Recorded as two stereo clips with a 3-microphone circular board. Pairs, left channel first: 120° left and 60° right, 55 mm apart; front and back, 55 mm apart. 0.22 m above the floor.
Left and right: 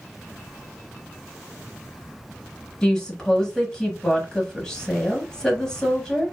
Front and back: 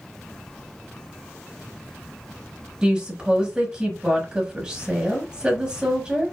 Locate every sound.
2.8 s a woman speaking: 165° left, 0.9 m